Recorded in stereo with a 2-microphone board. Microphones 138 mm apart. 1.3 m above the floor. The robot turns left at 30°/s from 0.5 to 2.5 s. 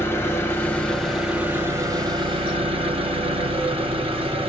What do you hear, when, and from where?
0.0 s an engine running: 20° left, 0.9 m; by 4.5 s 40° right, 0.9 m